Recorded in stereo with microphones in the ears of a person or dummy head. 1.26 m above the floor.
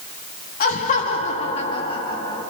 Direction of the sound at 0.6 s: 50° left (ahead or behind).